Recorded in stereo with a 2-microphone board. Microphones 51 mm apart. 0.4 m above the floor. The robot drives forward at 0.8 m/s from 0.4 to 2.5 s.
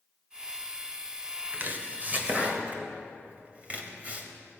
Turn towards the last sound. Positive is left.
turn(degrees=-30)  # may be behind; listen again after turning